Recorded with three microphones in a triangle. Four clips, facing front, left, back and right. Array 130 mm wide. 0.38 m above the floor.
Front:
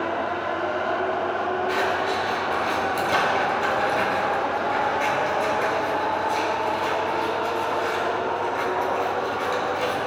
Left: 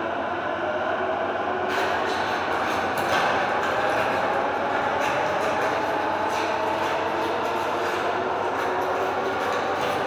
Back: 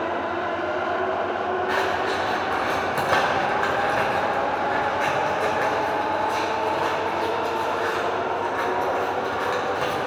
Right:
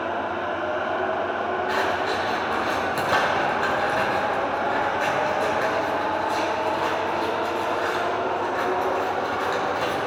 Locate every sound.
1.7 s scissors: 155° right, 1.5 m